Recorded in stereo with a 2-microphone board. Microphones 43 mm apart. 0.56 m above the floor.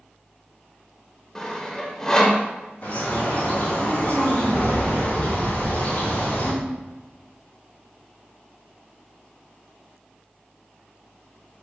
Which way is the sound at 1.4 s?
15° left (ahead or behind).